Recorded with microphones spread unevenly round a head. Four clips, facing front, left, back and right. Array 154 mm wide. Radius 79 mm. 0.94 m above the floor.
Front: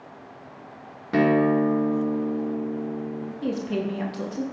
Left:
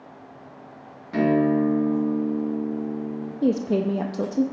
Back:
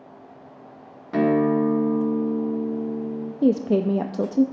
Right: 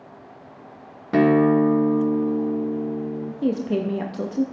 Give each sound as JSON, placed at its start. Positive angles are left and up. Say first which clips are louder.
{"t": 1.1, "sound": "a guitar", "louder": "right 4 dB, even", "azimuth_deg": -50, "distance_m": 1.2}
{"t": 3.4, "sound": "a woman speaking", "louder": "left 2 dB, back 8 dB", "azimuth_deg": 175, "distance_m": 0.8}